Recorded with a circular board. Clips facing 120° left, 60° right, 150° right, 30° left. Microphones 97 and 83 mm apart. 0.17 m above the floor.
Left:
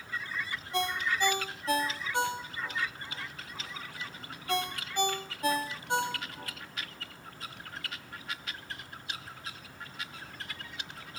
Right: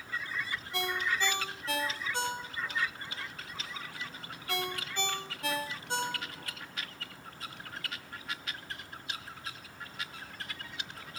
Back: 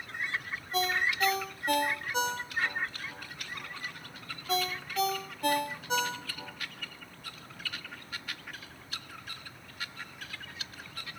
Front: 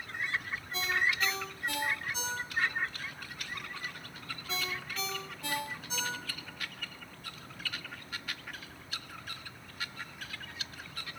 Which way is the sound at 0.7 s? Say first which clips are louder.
Left 2 dB, back 2 dB; 170° right.